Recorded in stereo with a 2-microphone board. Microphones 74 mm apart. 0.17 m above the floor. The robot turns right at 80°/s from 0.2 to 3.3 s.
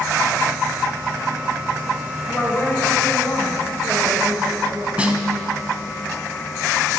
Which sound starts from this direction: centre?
A snare drum, at 5.0 s.